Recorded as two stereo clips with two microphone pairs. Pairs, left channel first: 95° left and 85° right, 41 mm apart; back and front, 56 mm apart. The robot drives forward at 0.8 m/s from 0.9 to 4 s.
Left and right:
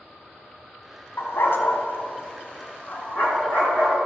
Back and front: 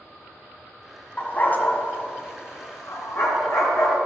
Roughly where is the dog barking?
Left.